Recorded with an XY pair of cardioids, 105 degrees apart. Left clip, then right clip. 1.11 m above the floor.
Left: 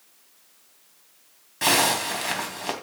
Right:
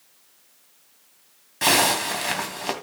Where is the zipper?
15° right, 3 m.